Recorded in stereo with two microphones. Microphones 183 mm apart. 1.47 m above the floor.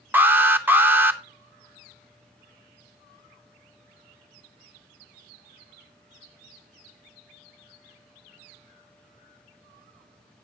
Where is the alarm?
10° right (ahead or behind), 0.7 m.